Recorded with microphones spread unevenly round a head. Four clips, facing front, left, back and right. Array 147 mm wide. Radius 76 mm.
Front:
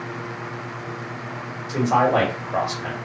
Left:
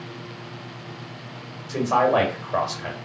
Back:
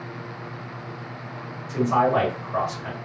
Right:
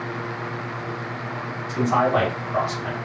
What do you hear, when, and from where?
1.7 s a man speaking: 55° left, 1.9 m